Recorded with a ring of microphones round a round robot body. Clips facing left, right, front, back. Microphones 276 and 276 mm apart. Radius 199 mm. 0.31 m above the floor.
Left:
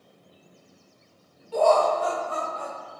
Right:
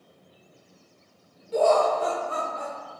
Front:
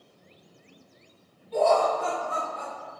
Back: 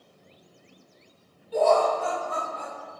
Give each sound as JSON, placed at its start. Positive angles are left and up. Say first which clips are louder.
{"t": 1.5, "sound": "laughter", "louder": "even, back 1 dB", "azimuth_deg": -115, "distance_m": 0.8}